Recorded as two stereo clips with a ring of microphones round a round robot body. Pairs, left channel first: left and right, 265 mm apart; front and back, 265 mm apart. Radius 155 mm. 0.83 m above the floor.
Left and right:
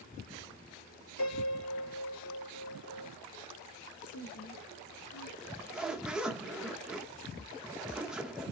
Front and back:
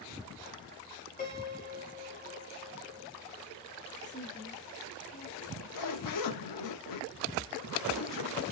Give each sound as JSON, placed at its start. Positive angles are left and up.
{"t": 1.2, "sound": "a piano", "azimuth_deg": 55, "distance_m": 2.0}
{"t": 4.0, "sound": "a woman speaking", "azimuth_deg": 60, "distance_m": 2.5}
{"t": 5.4, "sound": "a zipper", "azimuth_deg": -5, "distance_m": 0.8}